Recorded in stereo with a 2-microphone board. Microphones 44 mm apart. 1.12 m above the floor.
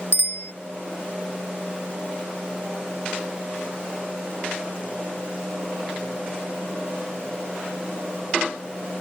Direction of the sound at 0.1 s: 70° left (ahead or behind).